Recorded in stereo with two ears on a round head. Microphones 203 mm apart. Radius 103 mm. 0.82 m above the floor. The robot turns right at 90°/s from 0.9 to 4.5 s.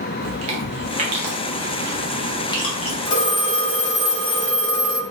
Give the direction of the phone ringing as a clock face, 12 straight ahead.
10 o'clock.